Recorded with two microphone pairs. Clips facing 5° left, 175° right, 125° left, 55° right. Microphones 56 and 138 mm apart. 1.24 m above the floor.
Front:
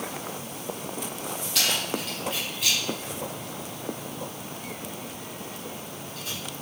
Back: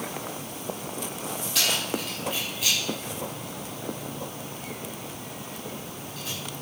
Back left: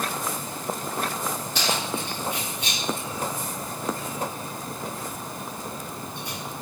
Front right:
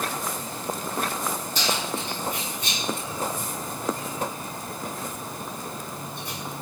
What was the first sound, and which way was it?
Keys jangling, 100° left.